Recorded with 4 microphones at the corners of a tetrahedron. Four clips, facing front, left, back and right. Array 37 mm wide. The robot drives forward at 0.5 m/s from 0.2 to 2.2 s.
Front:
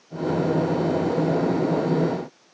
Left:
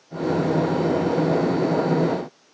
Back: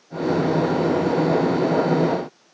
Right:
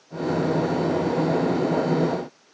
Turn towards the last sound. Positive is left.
No sound to turn to.